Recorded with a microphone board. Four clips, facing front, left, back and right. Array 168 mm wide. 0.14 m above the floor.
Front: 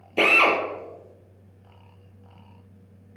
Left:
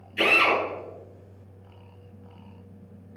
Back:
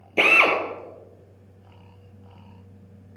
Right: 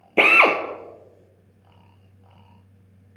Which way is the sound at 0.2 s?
95° right.